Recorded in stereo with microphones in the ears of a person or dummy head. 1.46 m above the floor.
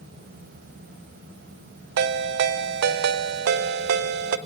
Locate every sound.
2.0 s a ringtone: 50° right (ahead or behind), 0.7 m